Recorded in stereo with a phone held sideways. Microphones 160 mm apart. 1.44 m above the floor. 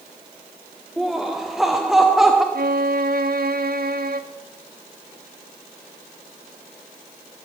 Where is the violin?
70° right (ahead or behind), 0.6 m.